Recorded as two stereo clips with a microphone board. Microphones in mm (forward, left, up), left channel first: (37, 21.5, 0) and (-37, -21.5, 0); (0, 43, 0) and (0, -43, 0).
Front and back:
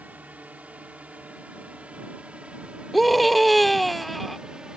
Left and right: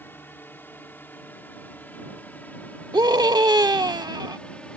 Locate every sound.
0.0 s a drone: 145° left
2.9 s a scream: 60° right